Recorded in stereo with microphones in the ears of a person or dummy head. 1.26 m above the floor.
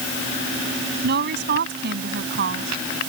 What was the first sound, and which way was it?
A woman speaking, 50° right (ahead or behind).